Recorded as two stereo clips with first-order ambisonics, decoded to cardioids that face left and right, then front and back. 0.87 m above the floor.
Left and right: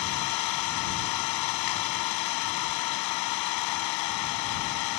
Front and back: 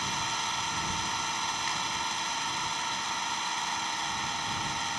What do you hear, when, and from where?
0.0 s an engine running: 95° left